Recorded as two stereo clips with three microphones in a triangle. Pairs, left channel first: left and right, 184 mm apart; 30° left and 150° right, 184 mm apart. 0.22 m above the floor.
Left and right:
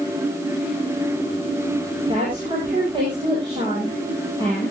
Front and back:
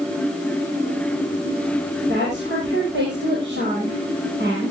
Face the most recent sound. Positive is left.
turn(degrees=-155)